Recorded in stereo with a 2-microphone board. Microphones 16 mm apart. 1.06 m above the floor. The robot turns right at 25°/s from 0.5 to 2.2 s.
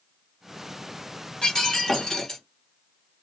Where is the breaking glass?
65° left (ahead or behind), 1.6 m; by 2.4 s 45° left (ahead or behind), 1.6 m.